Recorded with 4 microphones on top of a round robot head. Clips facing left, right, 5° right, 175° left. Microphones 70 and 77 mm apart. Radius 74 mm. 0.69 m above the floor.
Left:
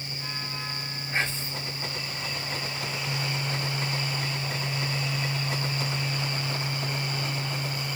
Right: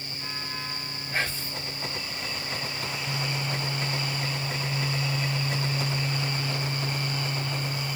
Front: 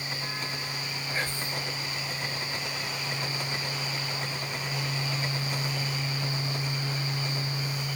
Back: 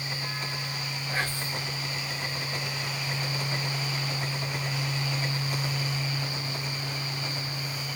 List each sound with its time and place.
1.1 s whispering: 155° left, 1.6 m